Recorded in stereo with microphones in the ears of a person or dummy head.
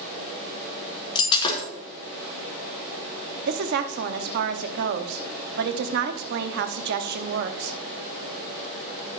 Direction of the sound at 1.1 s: 30° left (ahead or behind).